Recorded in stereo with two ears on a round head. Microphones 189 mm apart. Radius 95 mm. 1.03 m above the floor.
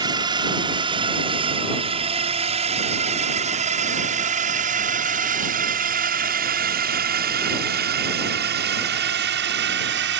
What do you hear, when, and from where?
0.0 s a drone: 20° right (ahead or behind); by 10.2 s 55° right (ahead or behind)